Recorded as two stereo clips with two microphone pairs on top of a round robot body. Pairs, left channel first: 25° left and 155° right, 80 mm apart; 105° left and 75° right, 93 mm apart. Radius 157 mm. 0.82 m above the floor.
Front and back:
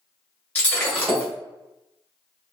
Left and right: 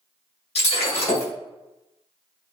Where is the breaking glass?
90° left, 1.9 m.